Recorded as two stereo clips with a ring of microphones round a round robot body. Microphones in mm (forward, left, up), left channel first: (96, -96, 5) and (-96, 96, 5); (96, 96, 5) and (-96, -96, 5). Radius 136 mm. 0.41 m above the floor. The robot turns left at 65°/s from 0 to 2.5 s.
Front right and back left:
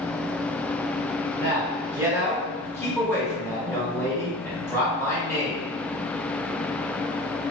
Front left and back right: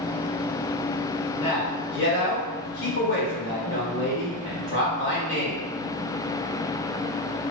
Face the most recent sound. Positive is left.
turn(degrees=30)